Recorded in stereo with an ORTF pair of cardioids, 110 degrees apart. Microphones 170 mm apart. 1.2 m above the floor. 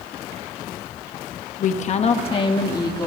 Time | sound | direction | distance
1.6 | a woman speaking | 50° left | 1.2 m